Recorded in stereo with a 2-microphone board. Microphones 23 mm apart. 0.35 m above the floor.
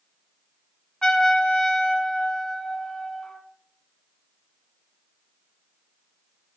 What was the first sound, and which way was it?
A trumpet, 25° left (ahead or behind).